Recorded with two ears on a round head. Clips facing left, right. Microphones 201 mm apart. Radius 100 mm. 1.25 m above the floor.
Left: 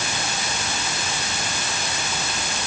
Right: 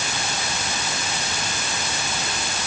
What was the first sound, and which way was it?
Only background noise.